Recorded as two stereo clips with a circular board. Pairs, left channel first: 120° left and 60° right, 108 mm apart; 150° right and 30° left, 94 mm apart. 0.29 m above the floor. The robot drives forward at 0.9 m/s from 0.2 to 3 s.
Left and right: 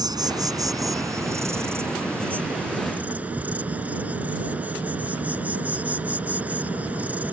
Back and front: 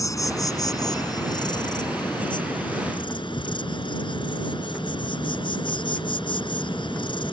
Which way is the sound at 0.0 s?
105° right.